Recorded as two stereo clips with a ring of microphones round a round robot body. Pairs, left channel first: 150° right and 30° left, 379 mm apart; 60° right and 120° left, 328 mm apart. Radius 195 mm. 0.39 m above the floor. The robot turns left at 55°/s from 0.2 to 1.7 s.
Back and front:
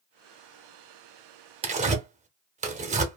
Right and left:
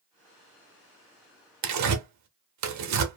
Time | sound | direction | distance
1.6 | tearing paper | 105° left | 0.7 m